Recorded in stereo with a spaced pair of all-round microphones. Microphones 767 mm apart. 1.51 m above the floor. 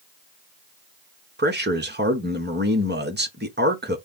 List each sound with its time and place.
1.4 s a man speaking: 15° right (ahead or behind), 1.1 m